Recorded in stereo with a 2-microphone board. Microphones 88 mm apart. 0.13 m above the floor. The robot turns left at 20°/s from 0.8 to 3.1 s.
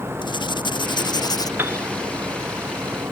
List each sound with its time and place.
0.2 s writing: 60° left (ahead or behind); by 1.5 s 45° left (ahead or behind)
1.6 s a piano: 20° right (ahead or behind); by 1.9 s 25° right (ahead or behind)